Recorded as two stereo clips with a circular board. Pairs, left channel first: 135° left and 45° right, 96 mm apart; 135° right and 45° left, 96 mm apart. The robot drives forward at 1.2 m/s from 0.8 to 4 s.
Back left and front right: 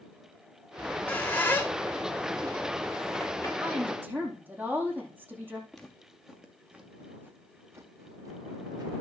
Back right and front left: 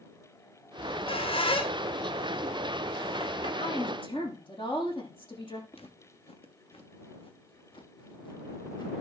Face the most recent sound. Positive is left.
turn(degrees=-90)